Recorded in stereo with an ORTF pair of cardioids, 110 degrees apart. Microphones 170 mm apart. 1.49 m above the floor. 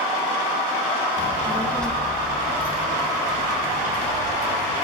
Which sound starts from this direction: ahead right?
A child speaking, at 1.2 s.